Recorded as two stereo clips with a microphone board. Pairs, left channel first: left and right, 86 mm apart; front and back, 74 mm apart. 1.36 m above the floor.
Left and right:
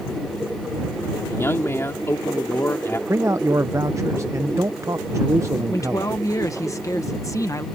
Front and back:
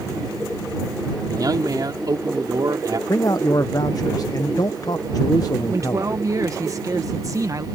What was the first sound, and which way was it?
A man speaking, 150° left.